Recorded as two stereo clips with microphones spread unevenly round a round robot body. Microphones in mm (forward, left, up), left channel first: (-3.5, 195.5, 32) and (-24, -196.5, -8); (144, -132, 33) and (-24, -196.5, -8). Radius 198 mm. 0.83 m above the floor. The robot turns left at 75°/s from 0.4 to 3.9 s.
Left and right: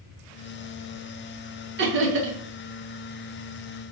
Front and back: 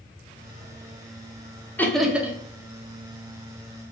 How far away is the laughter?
About 0.8 m.